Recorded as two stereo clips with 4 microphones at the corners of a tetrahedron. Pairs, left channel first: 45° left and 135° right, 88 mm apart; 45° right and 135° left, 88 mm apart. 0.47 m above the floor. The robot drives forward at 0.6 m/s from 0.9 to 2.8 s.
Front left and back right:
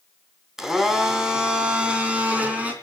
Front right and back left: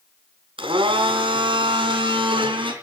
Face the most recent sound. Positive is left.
turn(degrees=150)